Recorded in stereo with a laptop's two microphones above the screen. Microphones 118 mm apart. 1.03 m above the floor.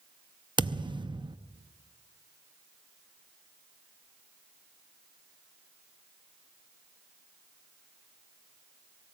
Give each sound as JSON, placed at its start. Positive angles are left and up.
{"t": 0.6, "sound": "a thud", "side_deg": -40, "distance_m": 0.5}